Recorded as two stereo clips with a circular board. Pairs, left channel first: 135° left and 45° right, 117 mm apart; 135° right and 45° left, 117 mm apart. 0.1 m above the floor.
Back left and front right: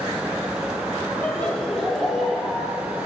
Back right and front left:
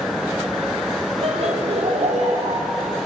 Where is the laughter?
55° left, 3.5 m; by 2.7 s 40° left, 4.5 m.